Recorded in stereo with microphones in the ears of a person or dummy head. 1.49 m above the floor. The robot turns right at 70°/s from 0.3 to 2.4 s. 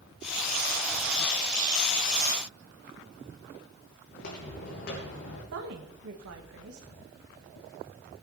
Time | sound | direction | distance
4.1 | footsteps | 60° left (ahead or behind) | 3 m
5.5 | a woman speaking | 70° right (ahead or behind) | 1.5 m